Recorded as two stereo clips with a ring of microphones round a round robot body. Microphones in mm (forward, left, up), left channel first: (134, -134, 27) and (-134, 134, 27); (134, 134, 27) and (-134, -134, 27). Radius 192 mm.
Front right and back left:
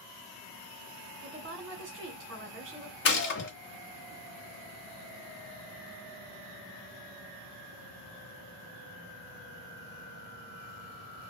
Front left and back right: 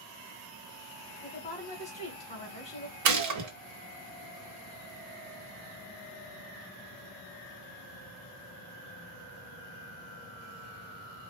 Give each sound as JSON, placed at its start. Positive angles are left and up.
{"t": 1.2, "sound": "a woman speaking", "azimuth_deg": 105, "distance_m": 1.4}
{"t": 3.0, "sound": "a gunshot", "azimuth_deg": -100, "distance_m": 0.9}